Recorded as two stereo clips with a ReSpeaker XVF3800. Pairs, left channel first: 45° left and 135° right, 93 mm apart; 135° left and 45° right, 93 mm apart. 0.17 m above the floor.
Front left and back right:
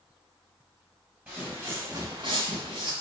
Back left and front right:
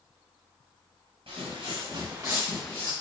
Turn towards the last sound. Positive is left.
turn(degrees=-160)